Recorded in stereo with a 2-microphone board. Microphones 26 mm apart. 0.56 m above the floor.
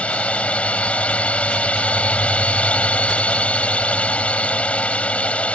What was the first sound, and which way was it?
A drone, 55° left (ahead or behind).